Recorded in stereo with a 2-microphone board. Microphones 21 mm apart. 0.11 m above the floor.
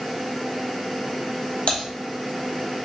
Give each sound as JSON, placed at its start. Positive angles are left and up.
{"t": 1.7, "sound": "typing on a keyboard", "side_deg": 65, "distance_m": 2.0}